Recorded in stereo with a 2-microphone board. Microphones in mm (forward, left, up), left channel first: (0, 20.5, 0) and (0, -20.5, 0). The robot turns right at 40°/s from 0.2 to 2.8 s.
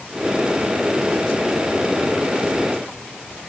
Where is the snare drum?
I don't hear a snare drum.